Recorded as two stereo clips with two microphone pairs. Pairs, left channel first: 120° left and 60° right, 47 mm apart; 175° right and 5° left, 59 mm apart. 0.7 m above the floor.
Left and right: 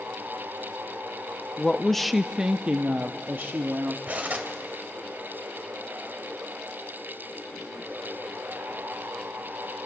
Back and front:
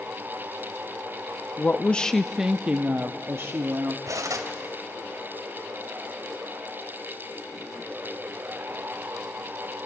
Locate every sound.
1.6 s a woman speaking: 175° left, 0.7 m; by 4.0 s 25° right, 1.2 m
4.1 s cutlery clinking: 10° right, 2 m